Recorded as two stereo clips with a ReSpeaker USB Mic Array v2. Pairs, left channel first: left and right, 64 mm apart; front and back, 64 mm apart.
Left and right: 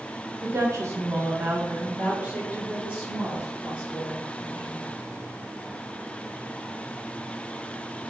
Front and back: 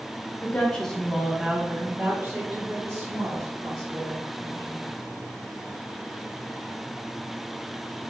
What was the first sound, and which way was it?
A woman speaking, 60° right.